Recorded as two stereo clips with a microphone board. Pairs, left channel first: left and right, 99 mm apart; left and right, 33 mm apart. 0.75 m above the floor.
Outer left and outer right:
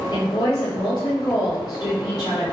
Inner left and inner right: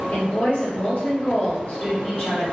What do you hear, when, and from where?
0.1 s a woman speaking: 45° left (ahead or behind), 1.3 m